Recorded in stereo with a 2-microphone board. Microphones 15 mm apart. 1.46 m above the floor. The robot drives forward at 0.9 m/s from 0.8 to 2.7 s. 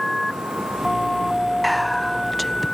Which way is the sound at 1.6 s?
5° left (ahead or behind).